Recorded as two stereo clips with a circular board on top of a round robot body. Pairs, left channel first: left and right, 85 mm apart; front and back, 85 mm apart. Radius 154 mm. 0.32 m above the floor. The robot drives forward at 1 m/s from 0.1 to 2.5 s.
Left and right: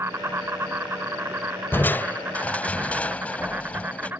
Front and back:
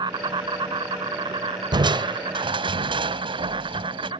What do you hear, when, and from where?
0.0 s an insect: 150° right; by 4.2 s 160° right
1.7 s crushing: 155° left; by 4.1 s 165° left